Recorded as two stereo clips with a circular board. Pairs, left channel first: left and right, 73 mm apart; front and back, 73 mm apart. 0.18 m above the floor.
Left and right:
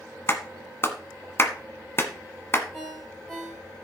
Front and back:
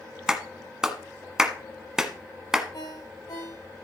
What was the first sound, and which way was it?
A clap, 105° left.